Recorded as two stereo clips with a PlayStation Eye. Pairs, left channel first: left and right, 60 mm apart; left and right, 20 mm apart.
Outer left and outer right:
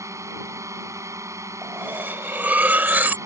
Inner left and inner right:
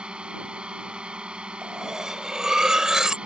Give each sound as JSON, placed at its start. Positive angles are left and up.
{"t": 0.0, "sound": "a drone", "side_deg": -60}
{"t": 1.6, "sound": "cutlery clinking", "side_deg": -30}